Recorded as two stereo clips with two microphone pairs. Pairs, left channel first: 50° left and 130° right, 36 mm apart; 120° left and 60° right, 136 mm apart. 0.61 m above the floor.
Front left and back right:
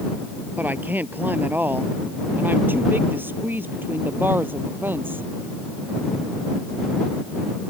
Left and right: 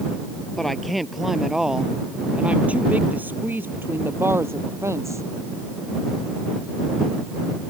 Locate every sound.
0.6 s a woman speaking: 155° right; by 5.3 s 130° right